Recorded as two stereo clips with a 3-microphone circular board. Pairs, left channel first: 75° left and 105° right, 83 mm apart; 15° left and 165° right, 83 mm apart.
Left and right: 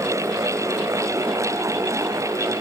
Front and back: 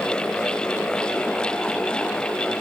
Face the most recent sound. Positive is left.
No sound to turn to.